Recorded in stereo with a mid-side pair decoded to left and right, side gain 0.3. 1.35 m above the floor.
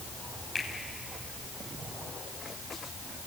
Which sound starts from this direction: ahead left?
A finger snap, at 0.6 s.